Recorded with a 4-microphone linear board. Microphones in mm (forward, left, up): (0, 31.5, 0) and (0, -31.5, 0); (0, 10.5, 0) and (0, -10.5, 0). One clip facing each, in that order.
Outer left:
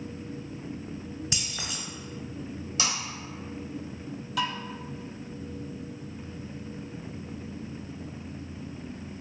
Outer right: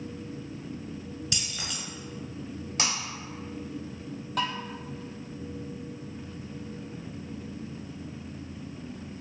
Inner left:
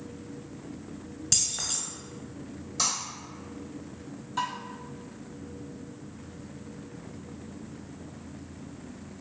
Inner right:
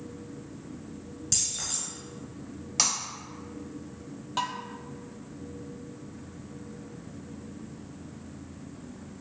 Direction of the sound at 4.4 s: 50° right (ahead or behind).